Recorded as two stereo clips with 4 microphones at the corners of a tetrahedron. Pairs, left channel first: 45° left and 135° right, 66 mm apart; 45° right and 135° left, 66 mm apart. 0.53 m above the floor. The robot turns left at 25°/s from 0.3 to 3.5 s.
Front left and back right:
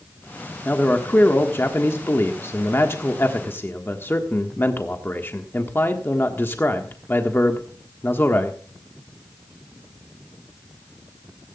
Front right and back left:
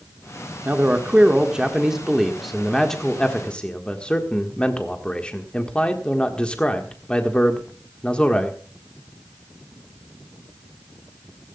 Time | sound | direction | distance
0.7 | a man speaking | 90° left | 1.5 m